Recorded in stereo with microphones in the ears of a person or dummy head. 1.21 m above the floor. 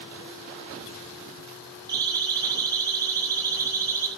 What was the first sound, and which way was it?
A siren, 20° right (ahead or behind).